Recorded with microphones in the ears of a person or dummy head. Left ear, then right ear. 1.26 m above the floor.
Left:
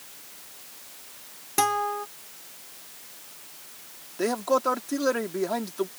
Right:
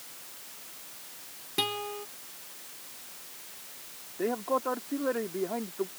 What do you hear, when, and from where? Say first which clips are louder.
1.6 s a guitar: left 7 dB; 40° left (ahead or behind)
4.2 s a man speaking: left 5 dB; 85° left